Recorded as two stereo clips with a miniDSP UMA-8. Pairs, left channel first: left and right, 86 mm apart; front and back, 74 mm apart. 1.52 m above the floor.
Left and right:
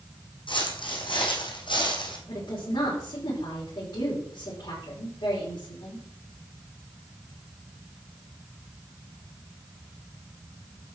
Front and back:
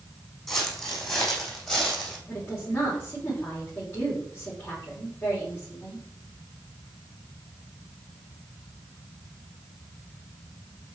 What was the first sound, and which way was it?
Footsteps, 85° left.